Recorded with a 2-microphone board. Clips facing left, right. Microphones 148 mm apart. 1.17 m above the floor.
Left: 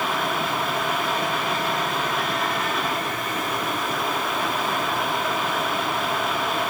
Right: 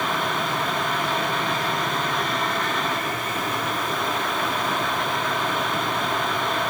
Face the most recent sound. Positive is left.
No sound to turn to.